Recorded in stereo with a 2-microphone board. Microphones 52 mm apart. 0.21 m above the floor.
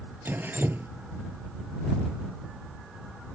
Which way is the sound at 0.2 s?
40° right (ahead or behind).